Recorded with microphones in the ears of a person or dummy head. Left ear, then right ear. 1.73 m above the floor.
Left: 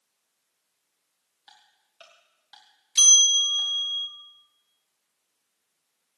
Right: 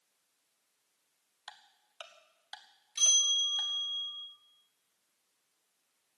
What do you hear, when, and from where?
1.5 s ticking: 35° right (ahead or behind), 1.4 m
3.0 s a bell: 35° left (ahead or behind), 2.5 m